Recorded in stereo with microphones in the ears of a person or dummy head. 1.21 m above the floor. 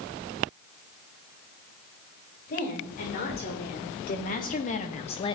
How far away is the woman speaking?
About 3 m.